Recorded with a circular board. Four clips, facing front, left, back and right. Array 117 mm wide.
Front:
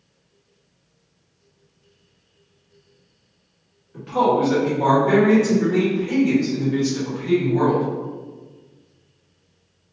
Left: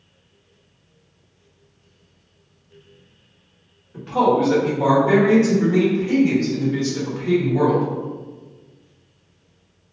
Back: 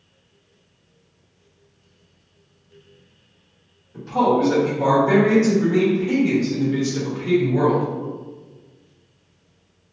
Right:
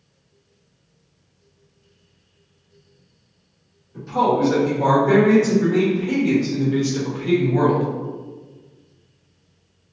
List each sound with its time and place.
3.9 s a man speaking: 55° left, 1.5 m; by 7.8 s 105° right, 1.8 m